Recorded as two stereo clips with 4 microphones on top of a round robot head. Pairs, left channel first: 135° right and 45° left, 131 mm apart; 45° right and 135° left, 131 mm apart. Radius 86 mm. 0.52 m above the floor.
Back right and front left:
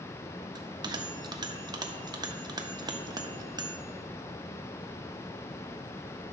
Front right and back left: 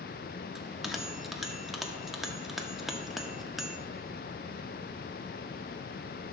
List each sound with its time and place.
0.6 s a bell: 45° left, 1.1 m